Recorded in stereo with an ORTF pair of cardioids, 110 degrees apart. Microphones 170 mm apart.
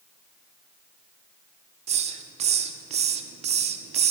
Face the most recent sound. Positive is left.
turn(degrees=-40)